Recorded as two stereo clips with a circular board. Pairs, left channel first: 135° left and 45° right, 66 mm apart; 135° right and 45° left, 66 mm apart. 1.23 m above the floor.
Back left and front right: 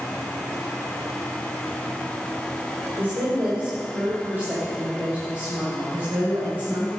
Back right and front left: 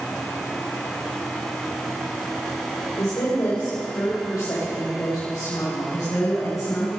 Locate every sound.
3.0 s a woman speaking: 100° right, 3.5 m; by 6.9 s 105° right, 8 m